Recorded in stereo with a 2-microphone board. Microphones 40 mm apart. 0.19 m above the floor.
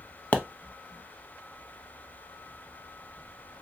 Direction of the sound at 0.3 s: 35° left (ahead or behind).